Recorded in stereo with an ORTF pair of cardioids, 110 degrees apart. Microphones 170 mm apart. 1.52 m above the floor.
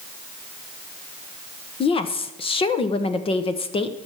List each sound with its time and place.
1.8 s a woman speaking: 30° left, 1.1 m